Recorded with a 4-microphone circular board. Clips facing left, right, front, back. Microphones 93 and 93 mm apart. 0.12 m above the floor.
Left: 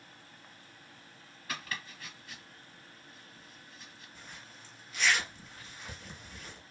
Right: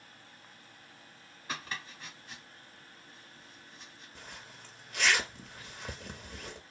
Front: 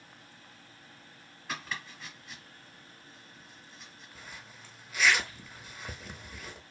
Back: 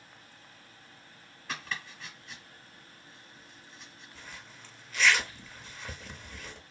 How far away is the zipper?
About 0.7 m.